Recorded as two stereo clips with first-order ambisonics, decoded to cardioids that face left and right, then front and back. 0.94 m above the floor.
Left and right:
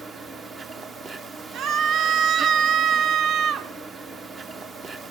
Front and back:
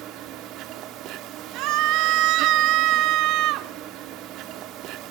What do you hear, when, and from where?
0.0 s an insect: 150° right, 1.1 m
1.5 s a scream: 140° right, 1.5 m